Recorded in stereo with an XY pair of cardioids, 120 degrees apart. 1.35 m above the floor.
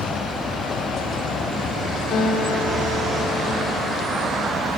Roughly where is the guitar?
Ahead left.